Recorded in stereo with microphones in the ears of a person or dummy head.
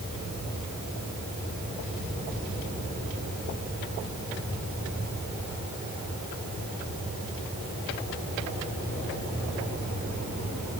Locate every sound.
Only background noise.